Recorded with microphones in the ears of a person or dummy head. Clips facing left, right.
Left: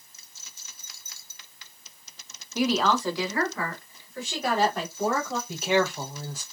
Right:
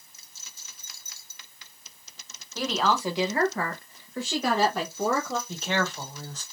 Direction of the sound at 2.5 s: 15° left (ahead or behind).